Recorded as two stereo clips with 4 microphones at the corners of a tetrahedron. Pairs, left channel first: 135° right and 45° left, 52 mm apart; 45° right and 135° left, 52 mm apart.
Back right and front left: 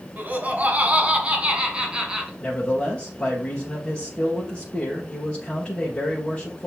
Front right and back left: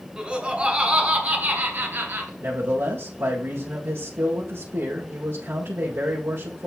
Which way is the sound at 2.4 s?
145° left.